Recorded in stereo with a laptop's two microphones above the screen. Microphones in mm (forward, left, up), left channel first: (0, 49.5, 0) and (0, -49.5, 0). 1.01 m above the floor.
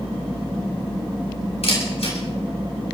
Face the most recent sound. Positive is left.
turn(degrees=75)  # may be behind; listen again after turning